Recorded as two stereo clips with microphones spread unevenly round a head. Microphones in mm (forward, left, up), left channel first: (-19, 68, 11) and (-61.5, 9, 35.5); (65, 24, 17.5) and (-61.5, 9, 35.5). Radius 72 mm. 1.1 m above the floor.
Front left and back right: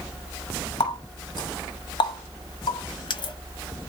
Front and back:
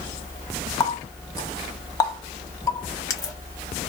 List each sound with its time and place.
0.8 s a running tap: 75° left, 1.0 m